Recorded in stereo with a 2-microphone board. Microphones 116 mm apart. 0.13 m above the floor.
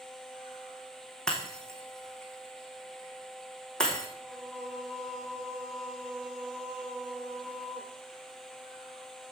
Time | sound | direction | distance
1.3 | breaking glass | 5° left (ahead or behind) | 3 m
4.2 | singing | centre (ahead or behind) | 1.7 m